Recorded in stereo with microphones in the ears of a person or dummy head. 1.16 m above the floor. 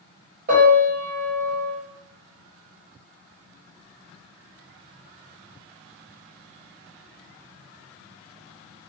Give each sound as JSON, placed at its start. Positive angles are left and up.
{"t": 0.5, "sound": "a piano", "side_deg": -45, "distance_m": 0.8}